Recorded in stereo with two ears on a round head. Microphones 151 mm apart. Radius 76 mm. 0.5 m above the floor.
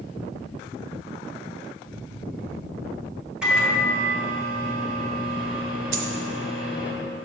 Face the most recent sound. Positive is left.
turn(degrees=-80)